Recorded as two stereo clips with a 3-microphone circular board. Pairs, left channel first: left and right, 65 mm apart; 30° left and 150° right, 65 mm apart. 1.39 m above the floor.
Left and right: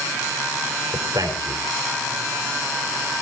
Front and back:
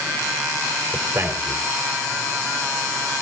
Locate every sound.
0.9 s a man speaking: 100° right, 4 m